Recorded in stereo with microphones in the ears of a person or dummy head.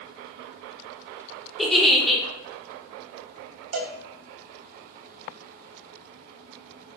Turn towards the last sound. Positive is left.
turn(degrees=-60)  # may be behind; listen again after turning